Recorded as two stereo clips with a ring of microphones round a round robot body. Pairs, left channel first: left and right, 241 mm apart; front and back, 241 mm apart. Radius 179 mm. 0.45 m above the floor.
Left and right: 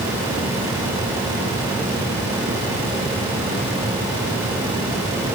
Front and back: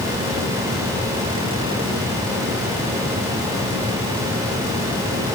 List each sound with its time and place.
Only background noise.